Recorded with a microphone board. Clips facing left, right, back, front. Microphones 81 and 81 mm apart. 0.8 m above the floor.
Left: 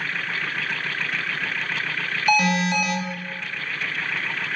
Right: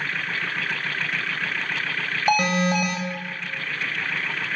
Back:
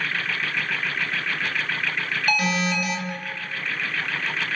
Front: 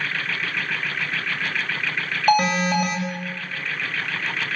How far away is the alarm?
About 2.5 m.